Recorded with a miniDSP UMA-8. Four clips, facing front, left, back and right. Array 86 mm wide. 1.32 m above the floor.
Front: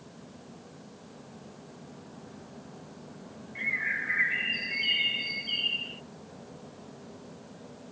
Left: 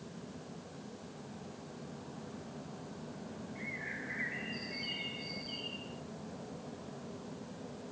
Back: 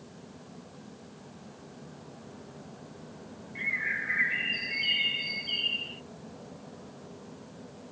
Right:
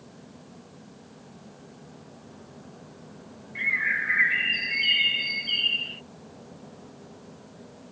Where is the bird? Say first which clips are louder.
Right 19 dB, front 1 dB; 85° right.